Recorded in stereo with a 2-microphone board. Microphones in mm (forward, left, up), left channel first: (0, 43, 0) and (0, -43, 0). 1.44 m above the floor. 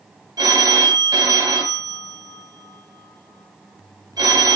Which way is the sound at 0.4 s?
50° right (ahead or behind).